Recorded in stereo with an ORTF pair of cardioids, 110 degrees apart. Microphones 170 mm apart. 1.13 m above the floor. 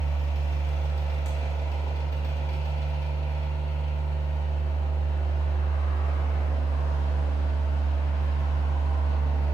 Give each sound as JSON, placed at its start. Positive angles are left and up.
{"t": 0.0, "sound": "a machine running", "azimuth_deg": 20, "distance_m": 1.0}